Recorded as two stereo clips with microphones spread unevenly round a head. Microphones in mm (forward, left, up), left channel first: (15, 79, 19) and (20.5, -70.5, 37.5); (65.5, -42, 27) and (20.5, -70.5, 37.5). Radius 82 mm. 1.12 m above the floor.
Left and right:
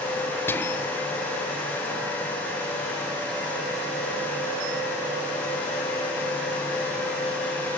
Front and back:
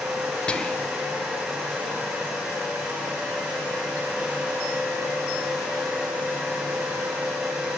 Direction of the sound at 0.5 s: 45° left.